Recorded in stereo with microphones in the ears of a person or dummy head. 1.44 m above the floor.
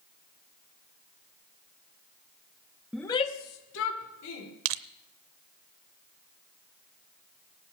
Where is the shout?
Centre (ahead or behind), 0.6 m; by 4.5 s 80° left, 2.5 m.